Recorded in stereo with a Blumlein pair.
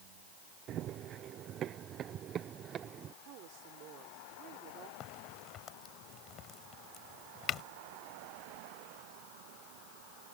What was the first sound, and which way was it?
Running footsteps, 30° right.